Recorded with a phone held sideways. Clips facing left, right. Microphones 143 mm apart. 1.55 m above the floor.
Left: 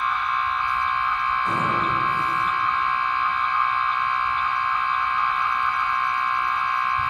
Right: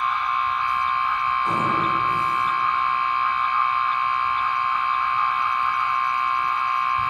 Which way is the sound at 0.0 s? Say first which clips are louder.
Right 1 dB; 15° right (ahead or behind).